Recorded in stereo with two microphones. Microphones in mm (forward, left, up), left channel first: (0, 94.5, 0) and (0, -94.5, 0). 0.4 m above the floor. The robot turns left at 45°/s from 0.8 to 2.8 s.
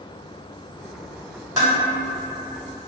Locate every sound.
1.6 s dishes clattering: 20° right (ahead or behind), 1.3 m; by 1.8 s 25° right (ahead or behind), 1.3 m